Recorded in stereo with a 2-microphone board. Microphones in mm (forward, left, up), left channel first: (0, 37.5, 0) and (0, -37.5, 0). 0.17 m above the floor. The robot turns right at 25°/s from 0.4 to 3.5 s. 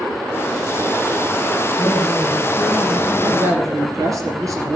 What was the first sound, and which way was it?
A man speaking, 30° right.